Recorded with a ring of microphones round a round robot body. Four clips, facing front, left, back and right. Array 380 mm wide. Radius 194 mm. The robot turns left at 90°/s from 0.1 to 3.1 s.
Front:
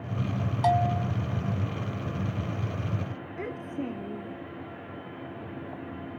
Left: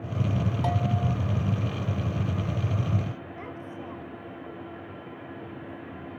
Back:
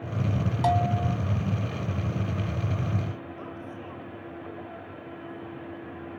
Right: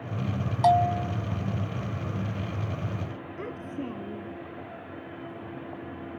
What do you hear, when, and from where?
0.6 s a bell: 105° right; by 1.2 s 150° right
3.4 s a child speaking: 35° right